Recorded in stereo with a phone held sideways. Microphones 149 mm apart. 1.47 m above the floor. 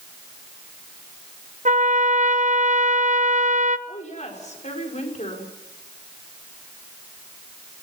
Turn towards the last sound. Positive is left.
turn(degrees=55)  # may be behind; listen again after turning